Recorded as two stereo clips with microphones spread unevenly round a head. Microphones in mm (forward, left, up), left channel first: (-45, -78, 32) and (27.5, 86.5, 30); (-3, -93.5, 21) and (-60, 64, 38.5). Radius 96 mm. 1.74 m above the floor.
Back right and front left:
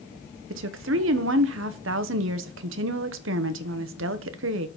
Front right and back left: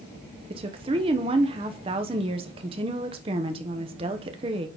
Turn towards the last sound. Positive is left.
turn(degrees=55)